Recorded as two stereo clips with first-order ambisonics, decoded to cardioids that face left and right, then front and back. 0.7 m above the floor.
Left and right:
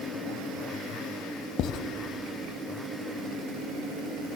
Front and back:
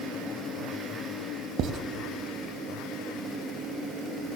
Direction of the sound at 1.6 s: 135° left.